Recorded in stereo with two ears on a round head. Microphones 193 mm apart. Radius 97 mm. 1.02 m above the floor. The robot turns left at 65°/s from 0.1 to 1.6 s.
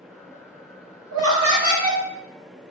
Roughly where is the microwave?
I don't hear a microwave.